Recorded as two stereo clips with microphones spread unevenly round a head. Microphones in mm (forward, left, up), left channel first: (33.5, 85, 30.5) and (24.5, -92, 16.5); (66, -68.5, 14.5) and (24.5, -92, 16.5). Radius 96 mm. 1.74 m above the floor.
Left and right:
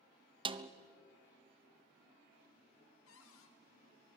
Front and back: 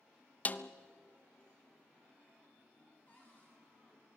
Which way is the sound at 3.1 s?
110° left.